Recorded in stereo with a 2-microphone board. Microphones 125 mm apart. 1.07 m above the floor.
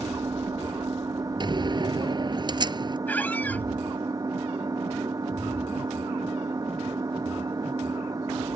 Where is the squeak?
15° left (ahead or behind).